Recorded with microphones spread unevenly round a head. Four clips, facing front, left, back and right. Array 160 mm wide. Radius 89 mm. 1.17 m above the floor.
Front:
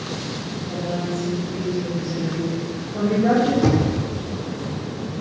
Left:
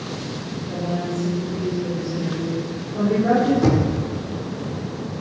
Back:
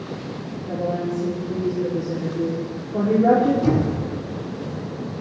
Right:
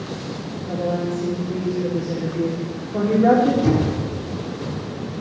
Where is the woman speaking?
135° right, 3.5 m.